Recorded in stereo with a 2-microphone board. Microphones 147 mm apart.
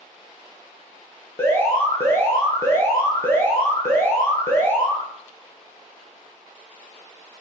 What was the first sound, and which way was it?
An alarm, 15° left (ahead or behind).